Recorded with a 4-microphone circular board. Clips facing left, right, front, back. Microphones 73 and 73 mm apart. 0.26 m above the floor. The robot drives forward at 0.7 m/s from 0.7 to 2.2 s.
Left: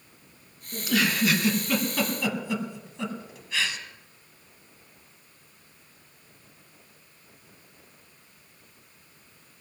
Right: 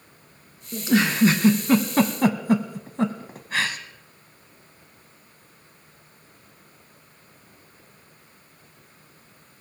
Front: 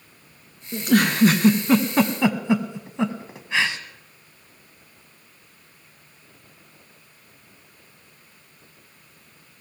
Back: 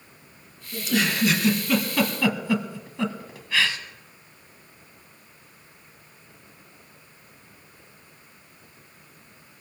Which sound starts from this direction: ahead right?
A giggle, at 0.7 s.